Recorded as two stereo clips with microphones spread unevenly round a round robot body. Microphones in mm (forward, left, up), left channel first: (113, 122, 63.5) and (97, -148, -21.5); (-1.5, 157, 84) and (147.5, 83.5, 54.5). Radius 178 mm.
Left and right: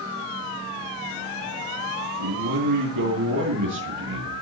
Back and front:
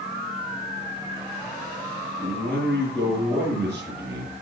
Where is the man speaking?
120° right, 9 m.